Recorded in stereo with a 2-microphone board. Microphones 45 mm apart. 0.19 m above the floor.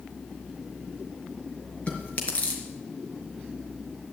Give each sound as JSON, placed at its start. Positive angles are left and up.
{"t": 1.9, "sound": "chewing", "side_deg": 30, "distance_m": 3.5}